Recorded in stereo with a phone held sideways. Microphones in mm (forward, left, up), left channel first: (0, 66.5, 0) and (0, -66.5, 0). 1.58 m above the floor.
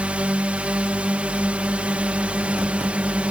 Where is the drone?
10° right (ahead or behind).